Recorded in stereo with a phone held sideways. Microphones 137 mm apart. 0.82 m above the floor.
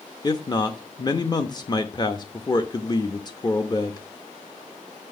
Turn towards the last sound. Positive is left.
turn(degrees=30)  # may be behind; listen again after turning